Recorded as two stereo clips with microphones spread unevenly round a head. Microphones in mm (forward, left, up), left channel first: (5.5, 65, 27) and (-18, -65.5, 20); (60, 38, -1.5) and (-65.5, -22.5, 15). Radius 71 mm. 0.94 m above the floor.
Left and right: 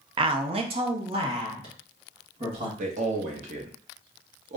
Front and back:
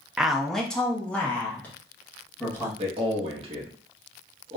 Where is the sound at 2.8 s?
105° right, 1.3 m.